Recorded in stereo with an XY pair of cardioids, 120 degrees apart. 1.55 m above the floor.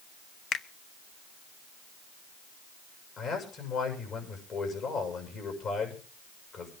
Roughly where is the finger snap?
Ahead left.